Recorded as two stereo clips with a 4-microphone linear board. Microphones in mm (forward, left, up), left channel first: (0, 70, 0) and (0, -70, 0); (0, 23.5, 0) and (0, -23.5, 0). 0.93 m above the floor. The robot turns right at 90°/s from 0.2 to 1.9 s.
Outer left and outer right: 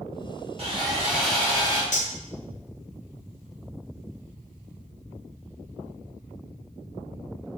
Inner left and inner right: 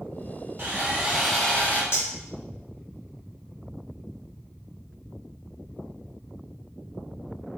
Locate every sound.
0.6 s sawing: 60° right, 0.7 m; by 1.8 s 50° left, 0.7 m
1.9 s cutlery clinking: 65° left (ahead or behind), 0.6 m